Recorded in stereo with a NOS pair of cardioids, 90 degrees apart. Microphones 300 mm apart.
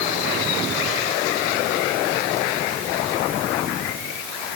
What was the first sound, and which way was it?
Only background noise.